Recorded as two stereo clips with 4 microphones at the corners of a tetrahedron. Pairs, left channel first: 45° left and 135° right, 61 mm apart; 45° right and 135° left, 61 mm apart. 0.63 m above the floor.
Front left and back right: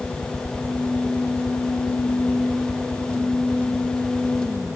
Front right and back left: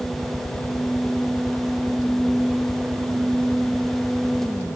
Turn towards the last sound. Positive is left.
turn(degrees=5)